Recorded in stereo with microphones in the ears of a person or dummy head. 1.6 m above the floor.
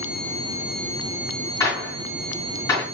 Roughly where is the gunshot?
Centre.